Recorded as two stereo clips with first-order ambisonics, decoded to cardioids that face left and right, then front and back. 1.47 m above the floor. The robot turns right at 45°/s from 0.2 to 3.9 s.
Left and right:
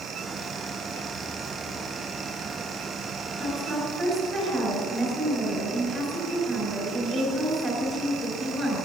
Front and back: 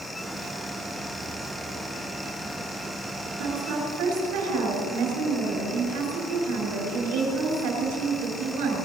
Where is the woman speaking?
160° left, 5 m; by 8.8 s 175° right, 5 m.